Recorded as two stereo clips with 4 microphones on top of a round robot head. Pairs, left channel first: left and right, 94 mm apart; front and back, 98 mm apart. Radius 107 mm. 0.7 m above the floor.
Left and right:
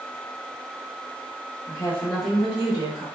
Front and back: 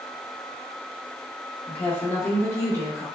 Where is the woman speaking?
65° left, 1.3 m; by 3.0 s 55° right, 1.5 m.